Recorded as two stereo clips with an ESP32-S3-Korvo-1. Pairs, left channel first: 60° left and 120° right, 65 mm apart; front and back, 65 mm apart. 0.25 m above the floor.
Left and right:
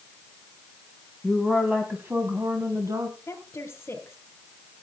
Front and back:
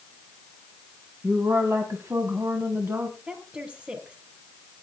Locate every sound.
1.2 s a woman speaking: 150° left, 2 m; by 3.2 s 125° right, 2.5 m
3.3 s a woman speaking: 110° left, 4 m